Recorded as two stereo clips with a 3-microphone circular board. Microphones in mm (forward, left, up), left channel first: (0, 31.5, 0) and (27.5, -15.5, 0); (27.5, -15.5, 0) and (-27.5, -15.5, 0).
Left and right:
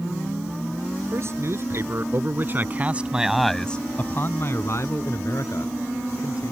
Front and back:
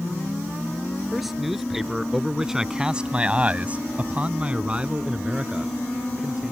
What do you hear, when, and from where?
1.1 s a man speaking: 90° right; by 6.5 s 105° left